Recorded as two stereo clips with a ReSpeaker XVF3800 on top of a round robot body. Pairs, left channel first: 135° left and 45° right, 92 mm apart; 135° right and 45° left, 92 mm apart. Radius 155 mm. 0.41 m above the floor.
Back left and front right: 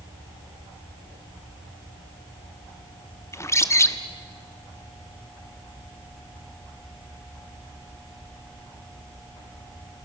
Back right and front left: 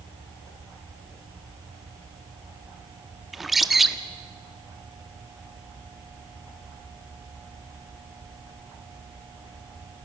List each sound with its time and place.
3.3 s a bird: 130° left, 1.4 m